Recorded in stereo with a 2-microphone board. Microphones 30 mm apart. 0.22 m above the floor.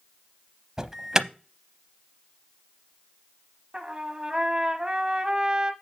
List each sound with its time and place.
0.8 s an alarm: 15° right (ahead or behind), 0.7 m
3.7 s a trumpet: 25° right (ahead or behind), 1.0 m